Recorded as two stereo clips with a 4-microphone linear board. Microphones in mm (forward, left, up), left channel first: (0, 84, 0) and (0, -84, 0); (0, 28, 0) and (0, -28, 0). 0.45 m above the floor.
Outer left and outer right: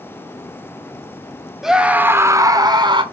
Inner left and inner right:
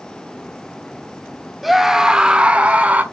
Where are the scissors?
I don't hear scissors.